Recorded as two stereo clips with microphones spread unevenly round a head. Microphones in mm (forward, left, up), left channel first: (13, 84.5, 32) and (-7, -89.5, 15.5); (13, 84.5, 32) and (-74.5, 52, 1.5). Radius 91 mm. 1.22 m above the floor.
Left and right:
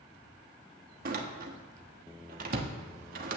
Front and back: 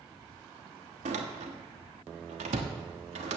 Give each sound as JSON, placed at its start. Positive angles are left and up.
{"t": 1.1, "sound": "a door slam", "azimuth_deg": -140, "distance_m": 1.2}